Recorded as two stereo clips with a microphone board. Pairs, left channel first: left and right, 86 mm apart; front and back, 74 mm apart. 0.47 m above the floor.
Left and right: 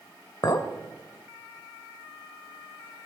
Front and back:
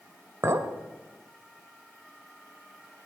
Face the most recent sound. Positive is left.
turn(degrees=135)